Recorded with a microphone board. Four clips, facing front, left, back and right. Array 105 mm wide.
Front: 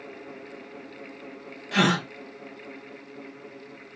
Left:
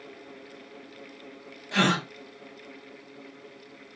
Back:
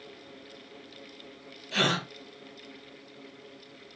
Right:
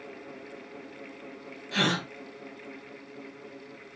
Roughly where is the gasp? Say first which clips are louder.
Left 4 dB, front 6 dB; ahead.